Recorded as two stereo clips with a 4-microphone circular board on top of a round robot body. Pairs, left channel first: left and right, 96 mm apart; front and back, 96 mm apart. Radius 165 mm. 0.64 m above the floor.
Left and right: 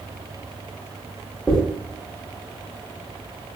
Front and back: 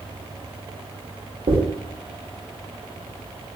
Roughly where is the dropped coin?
Behind.